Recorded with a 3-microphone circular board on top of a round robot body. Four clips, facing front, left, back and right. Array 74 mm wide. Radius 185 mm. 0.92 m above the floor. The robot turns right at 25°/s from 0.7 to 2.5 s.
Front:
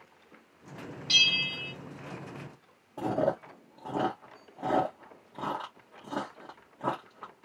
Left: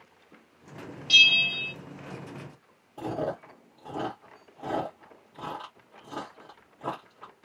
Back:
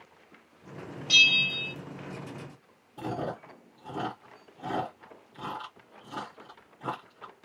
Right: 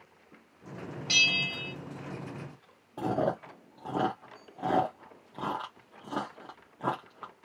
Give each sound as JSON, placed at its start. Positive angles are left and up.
{"t": 1.1, "sound": "a bell", "azimuth_deg": -90, "distance_m": 1.5}
{"t": 3.0, "sound": "chewing", "azimuth_deg": -55, "distance_m": 0.5}